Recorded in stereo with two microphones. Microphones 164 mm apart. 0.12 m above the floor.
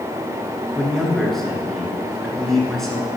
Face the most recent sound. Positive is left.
turn(degrees=0)  # may be behind; listen again after turning